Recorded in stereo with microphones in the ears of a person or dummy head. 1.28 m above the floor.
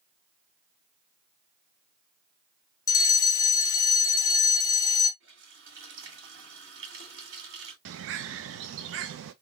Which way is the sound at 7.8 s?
70° right (ahead or behind).